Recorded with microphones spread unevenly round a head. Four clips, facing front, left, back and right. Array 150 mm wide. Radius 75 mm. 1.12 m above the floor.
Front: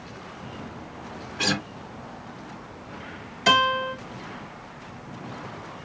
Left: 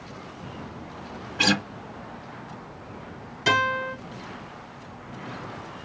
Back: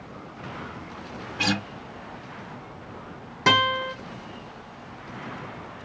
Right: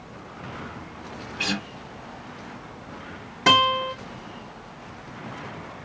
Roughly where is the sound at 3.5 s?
Behind right.